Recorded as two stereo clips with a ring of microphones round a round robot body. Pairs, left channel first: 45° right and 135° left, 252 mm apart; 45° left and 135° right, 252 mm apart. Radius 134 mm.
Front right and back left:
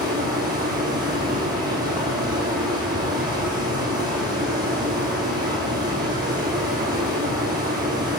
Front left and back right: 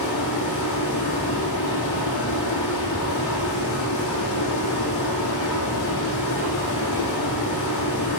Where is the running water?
60° left, 4 m.